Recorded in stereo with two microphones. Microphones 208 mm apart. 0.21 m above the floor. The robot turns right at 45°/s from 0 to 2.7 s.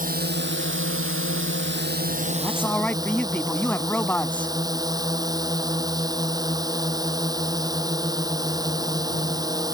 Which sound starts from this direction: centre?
A man speaking, at 2.4 s.